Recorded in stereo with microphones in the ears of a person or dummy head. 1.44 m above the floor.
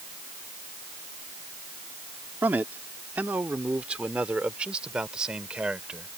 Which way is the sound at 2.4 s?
10° right (ahead or behind).